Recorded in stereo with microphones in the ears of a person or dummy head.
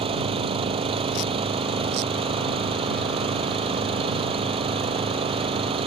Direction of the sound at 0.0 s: 25° right (ahead or behind).